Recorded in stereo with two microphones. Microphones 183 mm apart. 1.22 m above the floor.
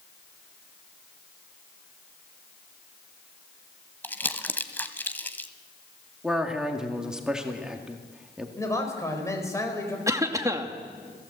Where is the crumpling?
10° left (ahead or behind), 1.2 m.